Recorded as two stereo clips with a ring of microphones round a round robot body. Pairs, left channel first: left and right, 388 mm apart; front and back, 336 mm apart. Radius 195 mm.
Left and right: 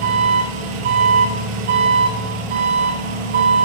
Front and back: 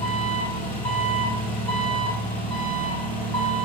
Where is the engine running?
85° right, 3 m.